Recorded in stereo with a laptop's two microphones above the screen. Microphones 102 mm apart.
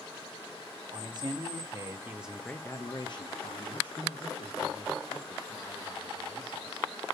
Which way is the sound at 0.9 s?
45° right (ahead or behind).